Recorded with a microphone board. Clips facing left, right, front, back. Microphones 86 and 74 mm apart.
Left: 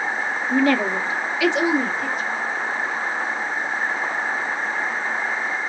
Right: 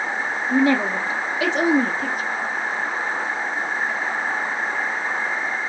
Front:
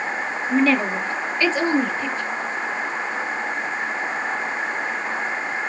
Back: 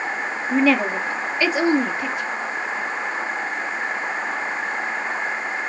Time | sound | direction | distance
0.5 | a woman speaking | 135° right | 1.3 m